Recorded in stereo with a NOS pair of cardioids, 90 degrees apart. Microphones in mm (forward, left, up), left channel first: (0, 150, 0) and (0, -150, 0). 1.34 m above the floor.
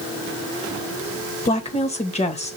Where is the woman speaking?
20° left, 1.9 m.